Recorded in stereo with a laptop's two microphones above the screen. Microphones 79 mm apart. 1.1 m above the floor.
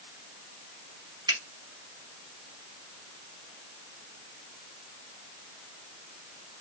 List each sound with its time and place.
1.3 s a finger snap: 60° right (ahead or behind), 1.5 m